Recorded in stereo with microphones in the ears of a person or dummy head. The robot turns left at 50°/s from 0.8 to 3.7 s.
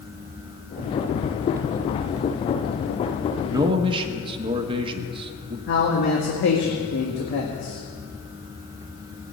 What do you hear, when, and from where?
3.5 s a man speaking: 15° right (ahead or behind), 1.3 m; by 5.6 s 25° right (ahead or behind), 1.3 m
5.7 s a man speaking: 55° left (ahead or behind), 1.9 m